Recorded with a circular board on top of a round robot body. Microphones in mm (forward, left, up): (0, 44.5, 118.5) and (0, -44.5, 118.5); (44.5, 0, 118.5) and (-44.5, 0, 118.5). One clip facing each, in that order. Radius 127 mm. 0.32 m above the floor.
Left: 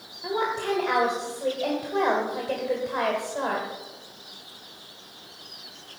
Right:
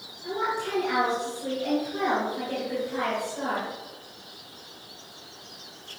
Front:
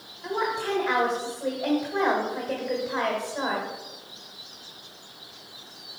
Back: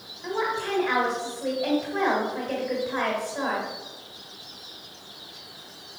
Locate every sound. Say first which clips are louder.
0.2 s a woman speaking: left 2 dB, even; 70° left, 2.0 m